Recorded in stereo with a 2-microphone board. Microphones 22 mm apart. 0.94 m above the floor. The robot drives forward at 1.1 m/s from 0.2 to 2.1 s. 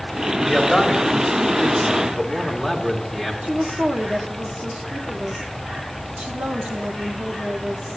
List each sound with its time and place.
0.5 s a man speaking: 10° right (ahead or behind), 4.5 m; by 3.3 s 20° right (ahead or behind), 2.5 m
3.4 s a woman speaking: 70° right (ahead or behind), 2 m